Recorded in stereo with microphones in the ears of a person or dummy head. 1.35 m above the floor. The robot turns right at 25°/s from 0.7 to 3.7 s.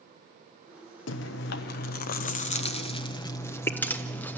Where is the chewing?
105° left, 0.7 m; by 4.4 s 170° left, 0.7 m.